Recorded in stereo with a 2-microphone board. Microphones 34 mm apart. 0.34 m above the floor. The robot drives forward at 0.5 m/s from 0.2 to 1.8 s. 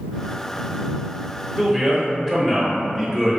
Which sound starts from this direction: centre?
A man speaking, at 1.6 s.